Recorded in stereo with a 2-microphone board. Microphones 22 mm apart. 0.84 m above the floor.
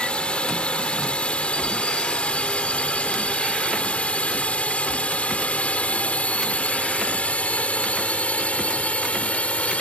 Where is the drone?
50° left (ahead or behind); by 9.8 s 65° left (ahead or behind).